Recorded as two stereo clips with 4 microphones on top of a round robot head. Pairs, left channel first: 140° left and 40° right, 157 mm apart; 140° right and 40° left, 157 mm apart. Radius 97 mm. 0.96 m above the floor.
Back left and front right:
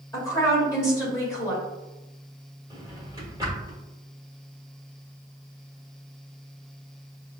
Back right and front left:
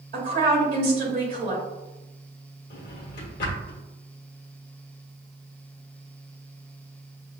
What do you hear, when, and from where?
0.1 s a woman speaking: 75° left, 2.0 m
2.7 s a drawer: 110° right, 0.9 m